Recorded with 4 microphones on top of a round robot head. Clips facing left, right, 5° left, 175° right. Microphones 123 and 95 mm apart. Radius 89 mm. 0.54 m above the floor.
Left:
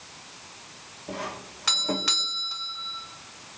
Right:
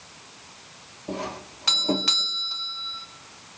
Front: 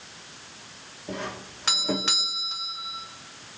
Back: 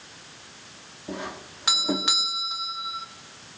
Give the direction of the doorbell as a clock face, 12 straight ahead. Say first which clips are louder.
Right 3 dB, even; 4 o'clock.